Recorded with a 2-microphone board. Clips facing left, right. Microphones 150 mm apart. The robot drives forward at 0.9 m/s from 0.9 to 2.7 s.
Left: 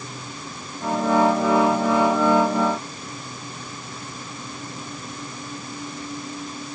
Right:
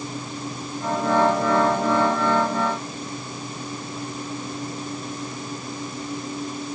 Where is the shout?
No shout in this recording.